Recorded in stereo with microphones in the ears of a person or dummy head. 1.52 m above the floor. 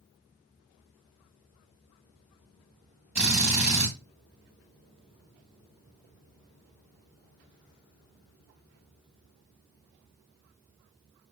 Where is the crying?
No crying in this recording.